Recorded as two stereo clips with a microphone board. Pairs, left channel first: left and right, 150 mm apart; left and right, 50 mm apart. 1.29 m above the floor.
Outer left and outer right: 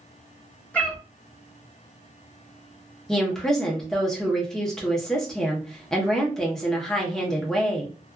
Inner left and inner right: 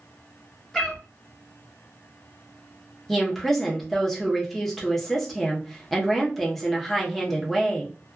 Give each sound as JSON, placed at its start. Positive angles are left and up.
{"t": 0.7, "sound": "a cat meowing", "side_deg": 10, "distance_m": 0.9}
{"t": 3.1, "sound": "a woman speaking", "side_deg": 5, "distance_m": 0.9}